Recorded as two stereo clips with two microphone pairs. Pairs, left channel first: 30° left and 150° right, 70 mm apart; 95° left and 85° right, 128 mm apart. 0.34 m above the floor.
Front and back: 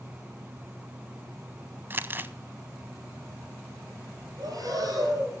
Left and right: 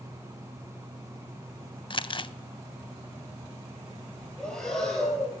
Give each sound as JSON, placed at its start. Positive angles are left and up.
{"t": 1.9, "sound": "crumpling", "azimuth_deg": 145, "distance_m": 0.5}
{"t": 4.4, "sound": "breathing", "azimuth_deg": 180, "distance_m": 4.5}